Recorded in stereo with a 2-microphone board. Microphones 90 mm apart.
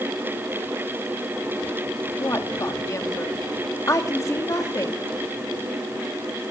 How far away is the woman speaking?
About 1.7 m.